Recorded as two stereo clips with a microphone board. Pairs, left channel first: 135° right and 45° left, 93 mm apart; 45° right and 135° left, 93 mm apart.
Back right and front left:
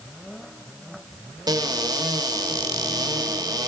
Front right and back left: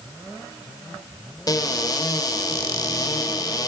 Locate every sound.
1.5 s a cupboard door: straight ahead, 1.4 m